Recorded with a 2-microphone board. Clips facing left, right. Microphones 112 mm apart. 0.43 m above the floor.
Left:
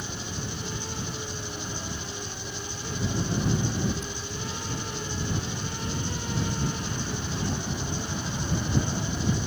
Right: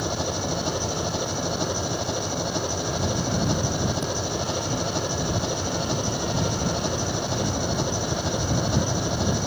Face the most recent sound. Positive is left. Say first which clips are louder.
# right 9 dB
turn(degrees=-80)